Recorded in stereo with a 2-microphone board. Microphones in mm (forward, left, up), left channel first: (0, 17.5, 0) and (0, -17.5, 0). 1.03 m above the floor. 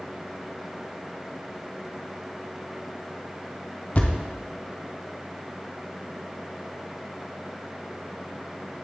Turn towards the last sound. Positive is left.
turn(degrees=40)  # may be behind; listen again after turning